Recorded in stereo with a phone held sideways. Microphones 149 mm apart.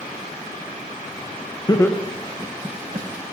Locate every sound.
1.7 s laughter: 25° left (ahead or behind), 0.5 m; by 3.1 s 40° right (ahead or behind), 0.8 m